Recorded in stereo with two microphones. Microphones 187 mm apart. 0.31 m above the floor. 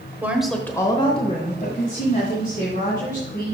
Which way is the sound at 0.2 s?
10° right (ahead or behind).